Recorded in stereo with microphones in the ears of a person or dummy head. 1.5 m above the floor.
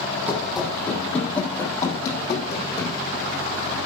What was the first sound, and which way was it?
Running footsteps, 5° right (ahead or behind).